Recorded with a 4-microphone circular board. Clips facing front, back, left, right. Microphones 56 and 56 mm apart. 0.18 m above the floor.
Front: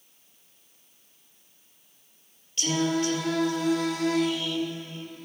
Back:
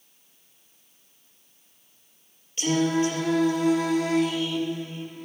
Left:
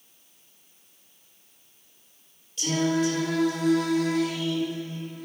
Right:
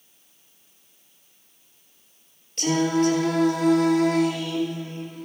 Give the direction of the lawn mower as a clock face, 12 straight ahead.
No lawn mower in this recording.